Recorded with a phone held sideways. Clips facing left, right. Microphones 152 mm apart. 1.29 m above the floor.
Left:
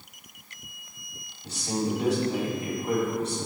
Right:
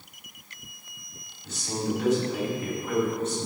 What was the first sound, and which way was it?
A man speaking, 35° left (ahead or behind).